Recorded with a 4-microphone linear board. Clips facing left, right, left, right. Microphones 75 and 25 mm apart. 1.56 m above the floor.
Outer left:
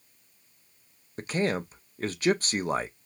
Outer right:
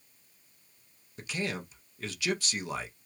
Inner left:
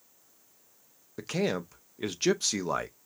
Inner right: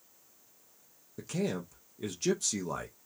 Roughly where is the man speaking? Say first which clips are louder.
Outer left 7 dB, inner left 4 dB; left.